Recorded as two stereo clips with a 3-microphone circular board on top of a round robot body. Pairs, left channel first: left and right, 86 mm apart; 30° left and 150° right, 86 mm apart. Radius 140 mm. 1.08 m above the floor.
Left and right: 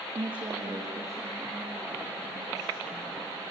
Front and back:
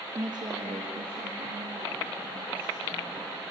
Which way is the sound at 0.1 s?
105° right.